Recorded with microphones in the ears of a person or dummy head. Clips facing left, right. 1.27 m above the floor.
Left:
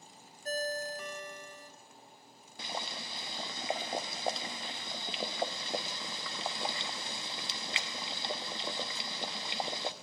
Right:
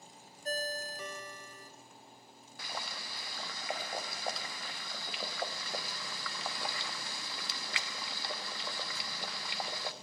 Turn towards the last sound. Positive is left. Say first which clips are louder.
# left 3 dB
turn(degrees=20)  # may be behind; listen again after turning